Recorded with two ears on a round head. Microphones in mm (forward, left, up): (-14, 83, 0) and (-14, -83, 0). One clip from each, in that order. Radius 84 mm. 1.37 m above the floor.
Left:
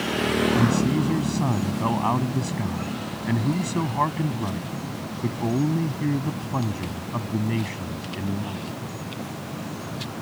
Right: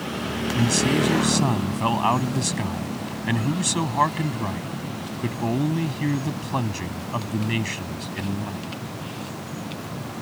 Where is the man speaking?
60° right (ahead or behind).